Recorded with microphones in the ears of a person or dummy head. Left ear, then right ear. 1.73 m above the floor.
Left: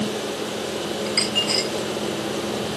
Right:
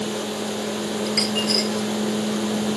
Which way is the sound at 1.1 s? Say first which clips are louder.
Left 1 dB; 15° left (ahead or behind).